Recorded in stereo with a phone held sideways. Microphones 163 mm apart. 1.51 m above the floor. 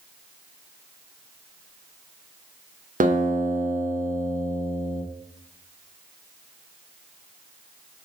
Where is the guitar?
55° right (ahead or behind), 0.5 m.